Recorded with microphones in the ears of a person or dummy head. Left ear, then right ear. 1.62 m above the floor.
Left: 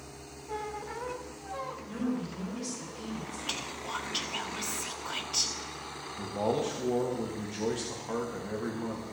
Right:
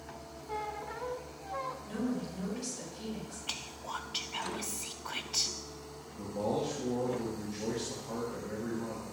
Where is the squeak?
Centre (ahead or behind), 0.6 m.